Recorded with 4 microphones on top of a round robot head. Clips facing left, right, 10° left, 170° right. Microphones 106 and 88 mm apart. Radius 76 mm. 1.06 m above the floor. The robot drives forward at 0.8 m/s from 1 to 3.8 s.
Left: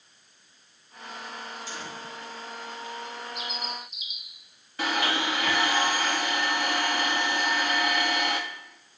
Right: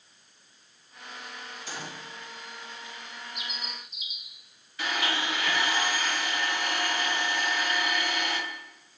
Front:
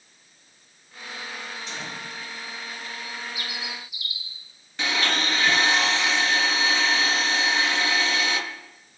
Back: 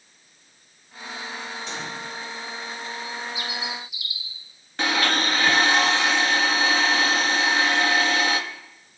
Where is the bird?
140° right, 0.9 m; by 4.5 s 155° right, 1.2 m.